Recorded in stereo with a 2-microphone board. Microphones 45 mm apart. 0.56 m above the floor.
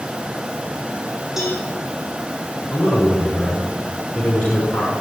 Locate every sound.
1.4 s a cowbell: 5° right (ahead or behind), 8.5 m
2.7 s a man speaking: 15° left (ahead or behind), 6 m